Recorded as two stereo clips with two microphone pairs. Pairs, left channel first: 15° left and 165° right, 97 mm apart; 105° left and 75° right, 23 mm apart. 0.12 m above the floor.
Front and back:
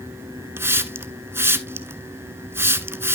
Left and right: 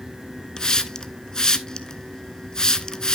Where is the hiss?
145° left, 0.5 m.